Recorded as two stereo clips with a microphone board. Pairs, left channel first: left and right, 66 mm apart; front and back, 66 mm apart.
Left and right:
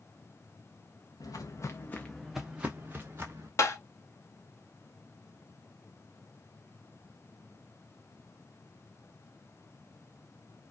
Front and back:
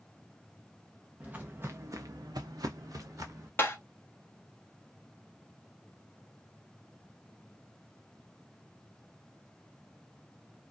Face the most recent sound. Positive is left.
turn(degrees=55)